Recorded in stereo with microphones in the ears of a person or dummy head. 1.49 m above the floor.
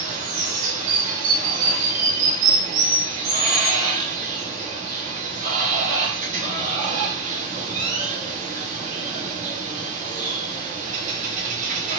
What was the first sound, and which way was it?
Running water, 40° right (ahead or behind).